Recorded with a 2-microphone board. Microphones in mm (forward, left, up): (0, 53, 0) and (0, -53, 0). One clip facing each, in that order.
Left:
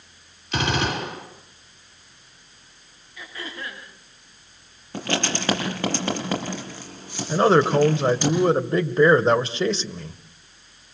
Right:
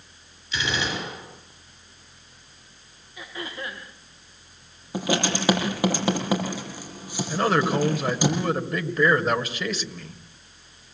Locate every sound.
0.5 s a gunshot: 65° left (ahead or behind), 5 m
3.2 s throat clearing: 15° right (ahead or behind), 8.5 m
4.9 s writing: 10° right (ahead or behind), 7 m
7.3 s a man speaking: 30° left (ahead or behind), 1.8 m